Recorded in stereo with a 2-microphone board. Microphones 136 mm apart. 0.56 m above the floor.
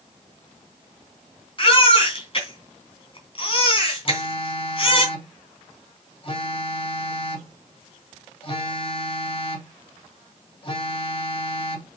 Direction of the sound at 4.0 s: 40° left (ahead or behind).